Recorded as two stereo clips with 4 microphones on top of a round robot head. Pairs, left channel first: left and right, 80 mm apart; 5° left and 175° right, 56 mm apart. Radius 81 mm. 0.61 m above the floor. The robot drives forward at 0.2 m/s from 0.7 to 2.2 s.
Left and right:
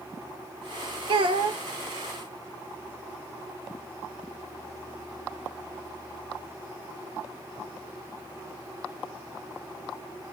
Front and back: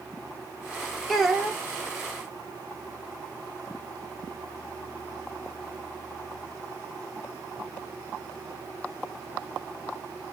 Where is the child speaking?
85° right, 0.7 m; by 1.6 s 95° right, 0.7 m.